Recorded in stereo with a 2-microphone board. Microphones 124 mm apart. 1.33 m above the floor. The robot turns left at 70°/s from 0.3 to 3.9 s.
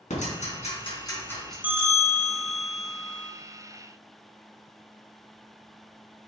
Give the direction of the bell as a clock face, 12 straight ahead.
12 o'clock.